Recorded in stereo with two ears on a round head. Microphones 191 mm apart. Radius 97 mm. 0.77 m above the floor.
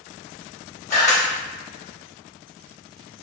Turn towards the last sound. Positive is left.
turn(degrees=35)  # may be behind; listen again after turning